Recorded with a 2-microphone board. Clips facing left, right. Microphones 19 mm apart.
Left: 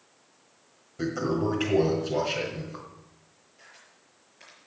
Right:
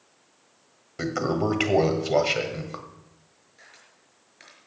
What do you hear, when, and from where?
1.0 s a toilet flushing: 55° right (ahead or behind), 1.7 m
3.6 s a camera shutter: 35° right (ahead or behind), 5.5 m